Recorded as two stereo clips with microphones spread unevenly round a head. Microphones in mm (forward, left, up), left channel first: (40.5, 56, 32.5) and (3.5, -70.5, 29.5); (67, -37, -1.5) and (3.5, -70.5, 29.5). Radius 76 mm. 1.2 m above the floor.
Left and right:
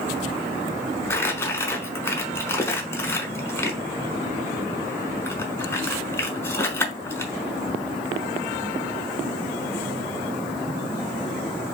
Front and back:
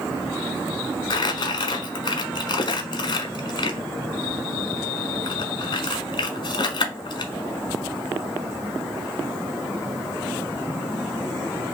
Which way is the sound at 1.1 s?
15° left.